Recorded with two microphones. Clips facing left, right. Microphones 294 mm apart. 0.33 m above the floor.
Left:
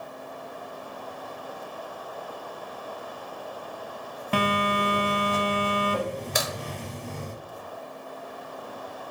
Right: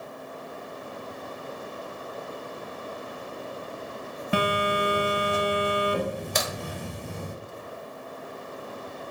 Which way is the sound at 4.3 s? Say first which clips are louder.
Even; 10° right (ahead or behind).